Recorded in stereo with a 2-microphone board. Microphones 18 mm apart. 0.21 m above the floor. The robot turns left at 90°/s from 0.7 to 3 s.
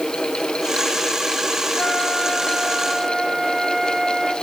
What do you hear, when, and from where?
1.8 s a flute: 85° left, 1.5 m; by 4.3 s 25° right, 1.5 m